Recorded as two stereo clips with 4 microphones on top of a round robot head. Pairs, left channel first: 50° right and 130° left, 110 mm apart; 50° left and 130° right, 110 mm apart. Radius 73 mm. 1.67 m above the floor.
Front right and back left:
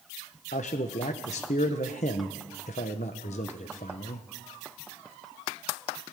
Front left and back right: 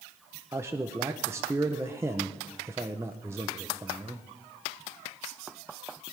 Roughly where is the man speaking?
Ahead right.